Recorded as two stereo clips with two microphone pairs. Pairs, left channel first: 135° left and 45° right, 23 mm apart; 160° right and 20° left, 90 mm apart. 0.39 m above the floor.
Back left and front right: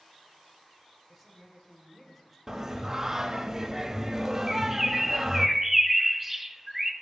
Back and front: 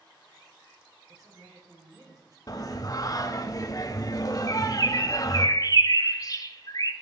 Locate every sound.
1.1 s a woman speaking: 45° left, 1.8 m
2.5 s singing: 115° right, 0.6 m
4.5 s a bird: 125° right, 0.6 m